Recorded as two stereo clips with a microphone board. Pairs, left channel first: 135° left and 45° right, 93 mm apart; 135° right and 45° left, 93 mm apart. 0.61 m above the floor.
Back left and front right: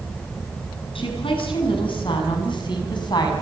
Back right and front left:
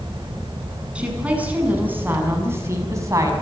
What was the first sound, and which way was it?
A woman speaking, 120° left.